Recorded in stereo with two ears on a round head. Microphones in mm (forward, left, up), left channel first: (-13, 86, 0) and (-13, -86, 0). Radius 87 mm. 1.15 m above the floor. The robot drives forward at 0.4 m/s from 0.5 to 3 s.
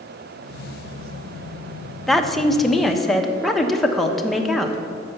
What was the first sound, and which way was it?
A woman speaking, centre (ahead or behind).